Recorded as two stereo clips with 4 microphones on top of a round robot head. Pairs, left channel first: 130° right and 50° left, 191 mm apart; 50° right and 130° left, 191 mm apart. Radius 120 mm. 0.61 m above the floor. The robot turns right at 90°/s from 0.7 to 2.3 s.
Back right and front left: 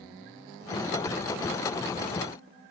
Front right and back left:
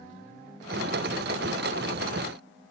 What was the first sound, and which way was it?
Only background noise.